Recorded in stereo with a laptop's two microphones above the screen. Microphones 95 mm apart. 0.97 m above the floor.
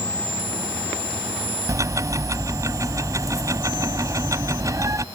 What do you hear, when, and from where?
1.7 s ticking: 35° right (ahead or behind)